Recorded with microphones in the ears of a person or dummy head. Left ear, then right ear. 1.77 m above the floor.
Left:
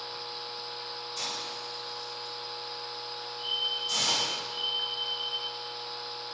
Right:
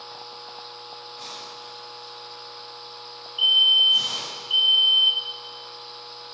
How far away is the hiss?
About 9.5 m.